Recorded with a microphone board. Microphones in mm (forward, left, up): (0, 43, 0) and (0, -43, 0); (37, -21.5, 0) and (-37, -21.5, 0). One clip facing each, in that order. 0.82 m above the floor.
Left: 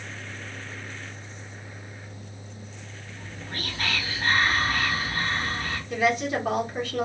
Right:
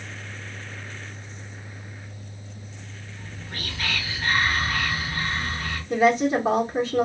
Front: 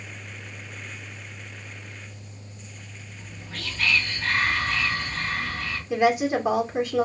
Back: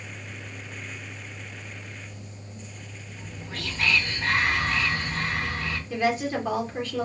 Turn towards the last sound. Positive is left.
turn(degrees=-60)